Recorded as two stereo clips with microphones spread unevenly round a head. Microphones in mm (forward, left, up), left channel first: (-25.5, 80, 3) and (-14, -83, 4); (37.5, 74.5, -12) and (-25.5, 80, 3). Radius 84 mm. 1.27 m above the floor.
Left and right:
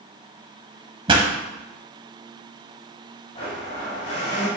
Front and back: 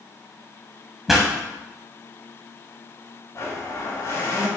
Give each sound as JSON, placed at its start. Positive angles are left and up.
{"t": 1.1, "sound": "a pop", "azimuth_deg": -120, "distance_m": 1.3}
{"t": 3.4, "sound": "a blender", "azimuth_deg": 35, "distance_m": 3.5}